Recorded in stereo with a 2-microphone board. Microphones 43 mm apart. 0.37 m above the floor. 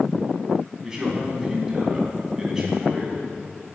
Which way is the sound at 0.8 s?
15° right (ahead or behind).